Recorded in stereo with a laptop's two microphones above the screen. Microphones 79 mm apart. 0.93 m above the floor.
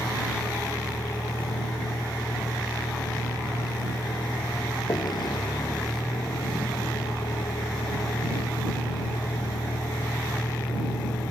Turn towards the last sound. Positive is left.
turn(degrees=85)